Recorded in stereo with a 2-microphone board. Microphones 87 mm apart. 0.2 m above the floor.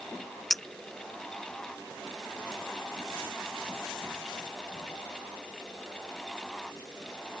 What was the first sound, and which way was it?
A clink, centre (ahead or behind).